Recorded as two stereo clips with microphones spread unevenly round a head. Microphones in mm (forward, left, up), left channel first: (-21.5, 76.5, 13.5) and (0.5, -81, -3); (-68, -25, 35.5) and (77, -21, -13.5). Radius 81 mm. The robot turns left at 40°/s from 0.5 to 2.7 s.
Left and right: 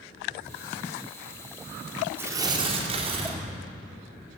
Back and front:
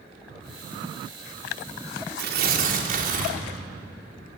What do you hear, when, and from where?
2.2 s tearing paper: 5° right, 3.5 m; by 3.4 s 25° right, 3.5 m